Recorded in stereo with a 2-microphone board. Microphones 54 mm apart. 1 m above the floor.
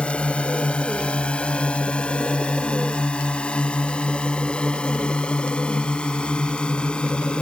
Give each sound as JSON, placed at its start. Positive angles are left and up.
{"t": 0.0, "sound": "a drone", "side_deg": 25}